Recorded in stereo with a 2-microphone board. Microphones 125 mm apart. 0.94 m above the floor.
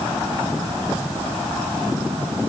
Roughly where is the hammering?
I don't hear hammering.